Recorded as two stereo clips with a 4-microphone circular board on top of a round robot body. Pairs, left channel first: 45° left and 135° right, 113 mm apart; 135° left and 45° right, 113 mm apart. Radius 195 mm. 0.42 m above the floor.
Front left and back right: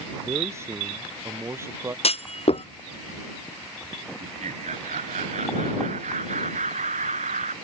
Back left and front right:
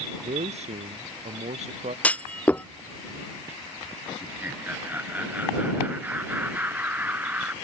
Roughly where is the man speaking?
Right.